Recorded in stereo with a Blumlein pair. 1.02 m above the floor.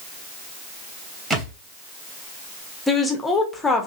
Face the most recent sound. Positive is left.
turn(degrees=10)